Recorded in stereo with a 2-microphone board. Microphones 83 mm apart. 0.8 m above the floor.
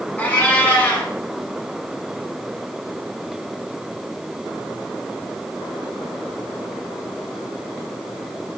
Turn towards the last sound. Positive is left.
turn(degrees=20)  # may be behind; listen again after turning